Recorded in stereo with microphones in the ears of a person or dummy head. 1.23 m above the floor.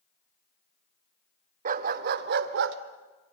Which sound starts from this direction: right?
A dog barking, at 1.6 s.